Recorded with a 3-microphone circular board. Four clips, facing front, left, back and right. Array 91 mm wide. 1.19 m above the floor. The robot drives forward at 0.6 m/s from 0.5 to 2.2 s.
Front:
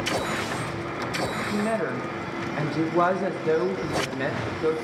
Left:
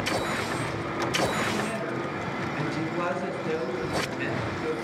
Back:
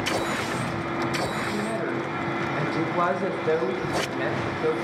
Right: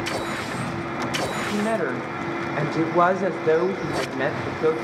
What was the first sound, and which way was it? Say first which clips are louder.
A woman speaking: right 6 dB, front 1 dB; 75° right.